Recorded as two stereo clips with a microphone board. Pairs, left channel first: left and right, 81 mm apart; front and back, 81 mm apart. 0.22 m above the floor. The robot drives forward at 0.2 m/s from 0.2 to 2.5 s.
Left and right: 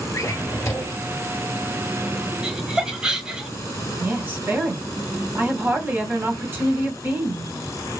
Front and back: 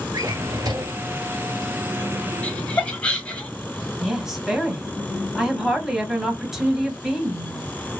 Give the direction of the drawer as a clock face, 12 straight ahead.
7 o'clock.